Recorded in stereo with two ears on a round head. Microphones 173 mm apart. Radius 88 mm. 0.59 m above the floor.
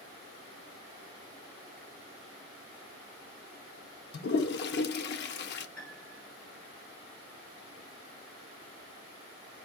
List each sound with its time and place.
4.1 s a toilet flushing: 60° left (ahead or behind), 0.7 m
5.8 s a piano: 5° left (ahead or behind), 1.9 m